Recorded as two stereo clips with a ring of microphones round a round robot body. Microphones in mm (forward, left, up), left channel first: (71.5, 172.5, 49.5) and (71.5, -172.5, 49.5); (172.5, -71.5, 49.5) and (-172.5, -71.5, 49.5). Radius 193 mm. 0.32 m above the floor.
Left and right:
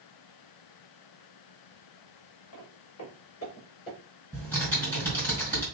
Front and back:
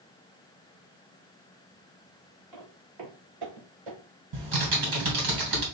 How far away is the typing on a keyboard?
About 2.5 m.